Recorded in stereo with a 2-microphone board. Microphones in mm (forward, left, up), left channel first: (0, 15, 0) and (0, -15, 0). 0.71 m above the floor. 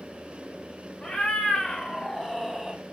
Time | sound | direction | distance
1.0 | a cat meowing | 30° left (ahead or behind) | 1.3 m